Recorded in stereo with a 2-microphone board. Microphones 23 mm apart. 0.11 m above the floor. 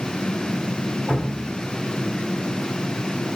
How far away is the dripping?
About 1.7 m.